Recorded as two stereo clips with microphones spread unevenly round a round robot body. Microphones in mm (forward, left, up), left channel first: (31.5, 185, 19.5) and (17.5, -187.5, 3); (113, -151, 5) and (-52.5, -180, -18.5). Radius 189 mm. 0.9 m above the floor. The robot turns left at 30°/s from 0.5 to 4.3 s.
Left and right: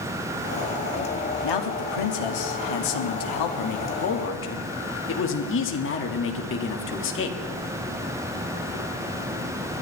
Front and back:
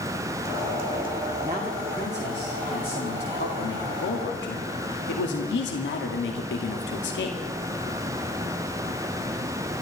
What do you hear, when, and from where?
1.4 s a man speaking: 115° left, 2 m; by 7.4 s 30° left, 2 m